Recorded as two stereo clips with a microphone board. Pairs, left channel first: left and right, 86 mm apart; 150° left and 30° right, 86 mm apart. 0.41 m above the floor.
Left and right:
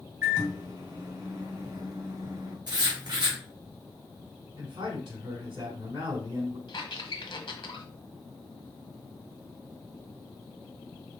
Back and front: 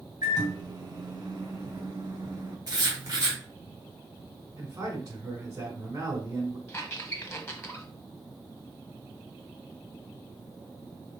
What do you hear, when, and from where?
0.2 s a microwave: 60° right, 2 m
2.7 s writing: 70° right, 2 m
4.6 s a man speaking: 75° right, 2.5 m
6.7 s a squeak: 95° left, 1.0 m